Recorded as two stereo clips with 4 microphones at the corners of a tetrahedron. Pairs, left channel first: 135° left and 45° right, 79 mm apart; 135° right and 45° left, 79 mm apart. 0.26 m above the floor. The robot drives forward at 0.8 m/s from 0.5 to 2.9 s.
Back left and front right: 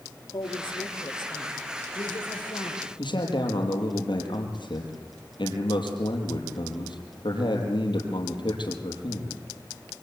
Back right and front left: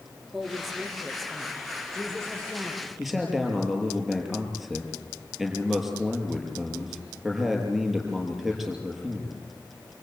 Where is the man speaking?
135° left, 5.5 m.